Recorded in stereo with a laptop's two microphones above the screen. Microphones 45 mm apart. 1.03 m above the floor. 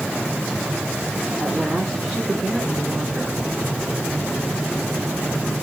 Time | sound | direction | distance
1.4 | a woman speaking | 15° left (ahead or behind) | 9.5 m